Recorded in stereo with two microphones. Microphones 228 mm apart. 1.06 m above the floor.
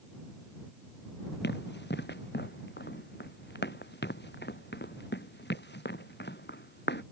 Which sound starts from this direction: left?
Running footsteps, at 1.4 s.